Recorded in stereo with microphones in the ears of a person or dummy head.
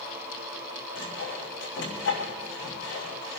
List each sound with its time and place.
0.9 s sawing: 65° left (ahead or behind), 5 m